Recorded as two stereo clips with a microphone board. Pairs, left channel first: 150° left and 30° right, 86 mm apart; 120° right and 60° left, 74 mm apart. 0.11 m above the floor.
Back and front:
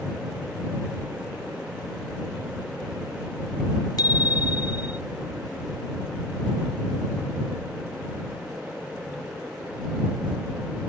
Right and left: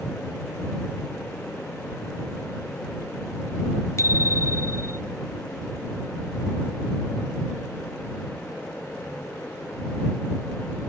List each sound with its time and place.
4.0 s a bicycle bell: 170° right; by 5.0 s 175° right